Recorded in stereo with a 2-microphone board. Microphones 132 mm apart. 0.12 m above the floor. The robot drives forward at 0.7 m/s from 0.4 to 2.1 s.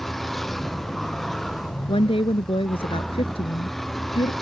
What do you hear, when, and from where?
0.0 s a vehicle: centre (ahead or behind)
1.9 s a woman speaking: 45° left (ahead or behind)